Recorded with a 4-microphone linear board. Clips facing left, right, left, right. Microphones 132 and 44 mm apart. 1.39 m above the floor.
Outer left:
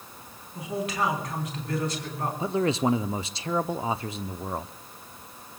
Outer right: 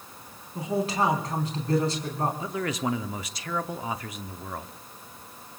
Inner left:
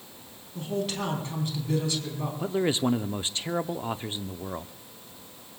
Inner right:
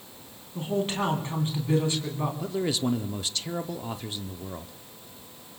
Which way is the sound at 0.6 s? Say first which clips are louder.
Outer right 3 dB, inner right 3 dB; 35° right (ahead or behind).